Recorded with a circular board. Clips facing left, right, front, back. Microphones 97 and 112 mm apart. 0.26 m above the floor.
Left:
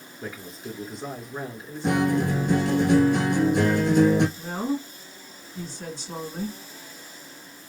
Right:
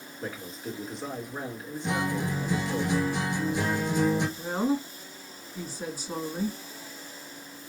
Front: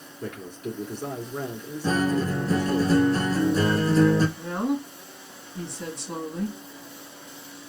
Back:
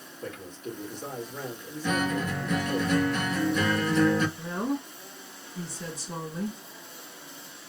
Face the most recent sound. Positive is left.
turn(degrees=-15)